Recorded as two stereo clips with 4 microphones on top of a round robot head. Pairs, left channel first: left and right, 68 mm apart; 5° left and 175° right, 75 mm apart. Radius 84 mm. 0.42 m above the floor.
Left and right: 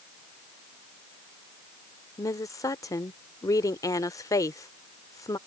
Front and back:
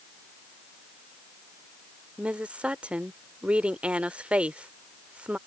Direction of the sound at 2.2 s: 115° left.